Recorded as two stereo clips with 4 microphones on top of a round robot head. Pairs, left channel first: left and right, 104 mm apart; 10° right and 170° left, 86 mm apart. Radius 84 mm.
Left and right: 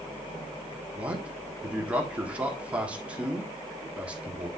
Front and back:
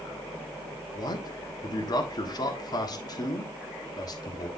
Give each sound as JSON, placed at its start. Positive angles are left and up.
{"t": 0.9, "sound": "a man speaking", "azimuth_deg": -15, "distance_m": 1.4}